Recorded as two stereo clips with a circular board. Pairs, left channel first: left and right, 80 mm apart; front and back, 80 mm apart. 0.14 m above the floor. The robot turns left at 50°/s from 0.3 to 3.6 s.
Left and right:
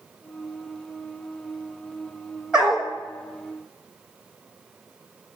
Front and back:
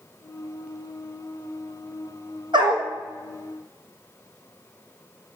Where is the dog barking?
170° right, 1.3 m; by 2.9 s 170° left, 1.3 m.